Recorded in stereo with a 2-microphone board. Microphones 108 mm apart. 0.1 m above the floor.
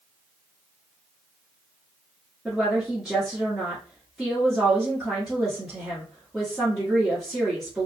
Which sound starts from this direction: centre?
A woman speaking, at 2.5 s.